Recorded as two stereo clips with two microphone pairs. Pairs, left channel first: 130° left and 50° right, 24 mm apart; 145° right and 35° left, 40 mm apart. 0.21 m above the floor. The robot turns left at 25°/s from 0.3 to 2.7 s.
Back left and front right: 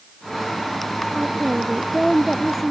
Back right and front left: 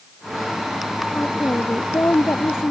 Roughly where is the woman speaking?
Right.